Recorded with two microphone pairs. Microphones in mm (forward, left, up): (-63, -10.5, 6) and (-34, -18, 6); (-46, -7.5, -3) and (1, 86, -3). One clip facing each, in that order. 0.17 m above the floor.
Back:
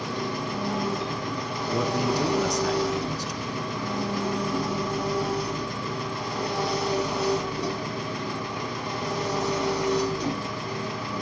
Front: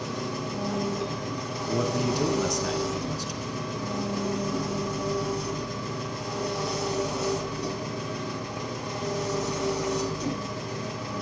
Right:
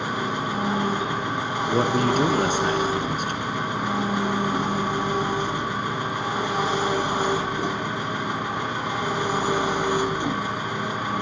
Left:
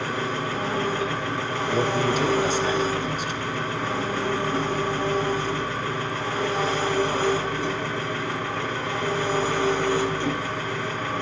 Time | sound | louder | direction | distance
0.0 | an engine running | back 2 dB, right 1 dB | 175° right | 1.5 m
1.6 | a man speaking | back 1 dB, right 2 dB | 115° right | 1.9 m